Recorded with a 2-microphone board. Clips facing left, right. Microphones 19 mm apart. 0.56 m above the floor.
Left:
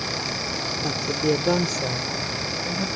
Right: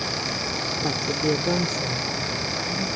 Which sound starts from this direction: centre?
A woman speaking, at 0.8 s.